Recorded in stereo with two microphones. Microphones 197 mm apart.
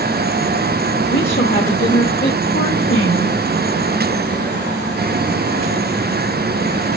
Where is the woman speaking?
55° left (ahead or behind), 2.5 m.